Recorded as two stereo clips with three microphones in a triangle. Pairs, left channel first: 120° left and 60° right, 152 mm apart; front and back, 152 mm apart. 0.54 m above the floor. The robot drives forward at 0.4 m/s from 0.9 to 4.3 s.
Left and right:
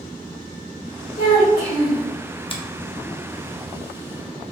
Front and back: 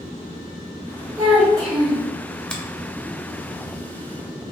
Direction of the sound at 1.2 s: 110° left.